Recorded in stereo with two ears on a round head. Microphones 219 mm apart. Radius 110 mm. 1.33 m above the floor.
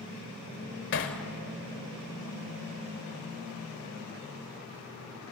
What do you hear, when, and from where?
0.9 s hammering: 50° left (ahead or behind), 1.9 m